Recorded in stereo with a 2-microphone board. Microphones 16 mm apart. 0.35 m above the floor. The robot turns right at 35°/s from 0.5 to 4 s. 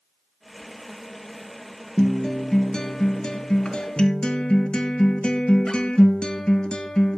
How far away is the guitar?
About 1.2 m.